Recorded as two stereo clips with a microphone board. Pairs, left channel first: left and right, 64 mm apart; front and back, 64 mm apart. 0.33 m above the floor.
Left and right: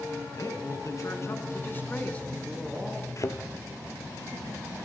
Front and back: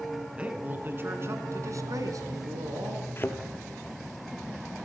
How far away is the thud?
About 1.8 m.